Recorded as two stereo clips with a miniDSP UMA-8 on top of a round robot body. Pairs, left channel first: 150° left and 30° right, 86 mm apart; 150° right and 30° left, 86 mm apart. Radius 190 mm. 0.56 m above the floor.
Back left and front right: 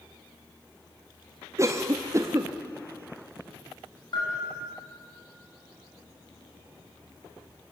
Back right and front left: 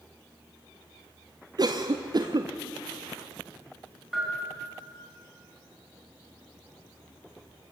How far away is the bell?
About 6.5 m.